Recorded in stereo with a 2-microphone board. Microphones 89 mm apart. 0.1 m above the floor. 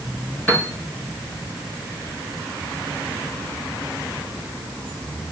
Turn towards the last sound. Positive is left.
turn(degrees=20)  # may be behind; listen again after turning